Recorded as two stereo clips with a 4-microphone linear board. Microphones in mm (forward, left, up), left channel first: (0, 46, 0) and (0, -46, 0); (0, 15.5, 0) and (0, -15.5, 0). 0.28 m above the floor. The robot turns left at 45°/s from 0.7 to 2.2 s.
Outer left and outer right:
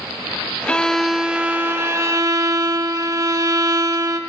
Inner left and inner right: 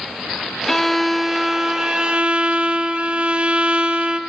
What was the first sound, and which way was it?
A violin, 15° left.